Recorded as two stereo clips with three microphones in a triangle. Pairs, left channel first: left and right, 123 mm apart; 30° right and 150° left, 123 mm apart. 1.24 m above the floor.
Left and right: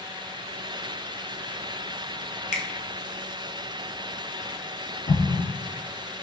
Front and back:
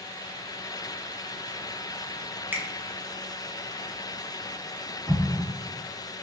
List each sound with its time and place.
2.5 s a finger snap: 80° left, 0.5 m
5.1 s an explosion: 90° left, 0.7 m